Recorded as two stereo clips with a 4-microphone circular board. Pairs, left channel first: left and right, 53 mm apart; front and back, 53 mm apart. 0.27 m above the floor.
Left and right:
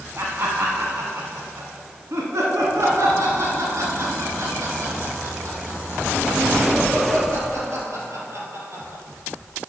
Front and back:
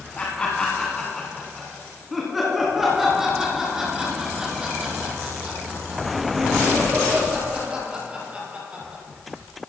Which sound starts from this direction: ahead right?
Laughter, at 0.2 s.